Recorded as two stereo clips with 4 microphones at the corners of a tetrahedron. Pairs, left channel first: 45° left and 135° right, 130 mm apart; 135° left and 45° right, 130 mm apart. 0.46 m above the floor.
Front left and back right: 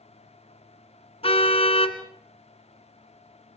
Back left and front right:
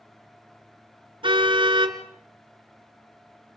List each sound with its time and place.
1.2 s a car horn: 5° left, 2 m